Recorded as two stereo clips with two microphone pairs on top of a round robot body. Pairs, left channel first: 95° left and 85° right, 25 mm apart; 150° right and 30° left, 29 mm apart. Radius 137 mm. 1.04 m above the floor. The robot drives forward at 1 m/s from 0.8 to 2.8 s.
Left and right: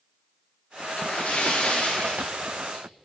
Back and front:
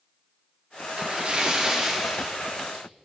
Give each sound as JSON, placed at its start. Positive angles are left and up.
{"t": 1.0, "sound": "a splash", "azimuth_deg": 65, "distance_m": 1.7}